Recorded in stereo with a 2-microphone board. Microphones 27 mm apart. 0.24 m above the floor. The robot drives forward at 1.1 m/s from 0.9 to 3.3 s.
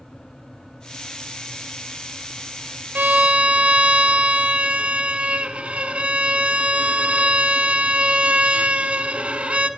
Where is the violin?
65° right (ahead or behind), 0.6 m; by 9.7 s 45° right (ahead or behind), 0.7 m.